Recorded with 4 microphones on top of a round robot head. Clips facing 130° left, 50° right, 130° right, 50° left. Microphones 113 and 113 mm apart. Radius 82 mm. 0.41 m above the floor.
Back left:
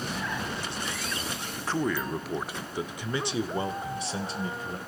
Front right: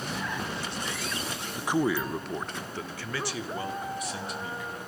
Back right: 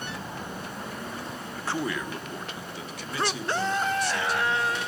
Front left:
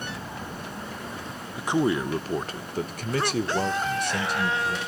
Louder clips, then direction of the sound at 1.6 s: Front right 3 dB, front left 7 dB; 10° right.